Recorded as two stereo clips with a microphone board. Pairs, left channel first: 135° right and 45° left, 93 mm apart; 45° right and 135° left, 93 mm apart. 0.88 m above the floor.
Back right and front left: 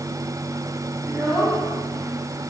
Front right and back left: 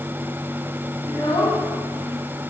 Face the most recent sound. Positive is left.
turn(degrees=10)